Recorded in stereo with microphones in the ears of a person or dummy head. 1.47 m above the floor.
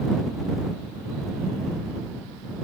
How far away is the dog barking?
No dog barking in this recording.